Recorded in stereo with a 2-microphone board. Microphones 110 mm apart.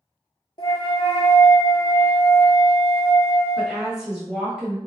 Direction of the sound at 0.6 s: 50° left (ahead or behind).